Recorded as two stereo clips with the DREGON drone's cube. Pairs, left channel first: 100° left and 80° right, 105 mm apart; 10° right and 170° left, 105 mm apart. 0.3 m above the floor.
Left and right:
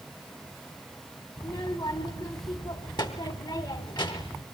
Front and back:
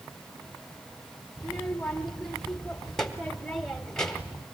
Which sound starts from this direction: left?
A child speaking, at 1.4 s.